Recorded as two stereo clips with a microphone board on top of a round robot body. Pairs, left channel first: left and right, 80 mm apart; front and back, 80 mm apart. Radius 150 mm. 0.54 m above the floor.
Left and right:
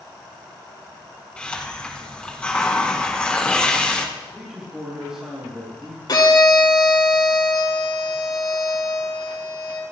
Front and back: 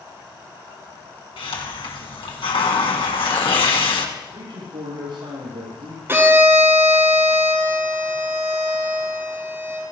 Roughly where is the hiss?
Ahead.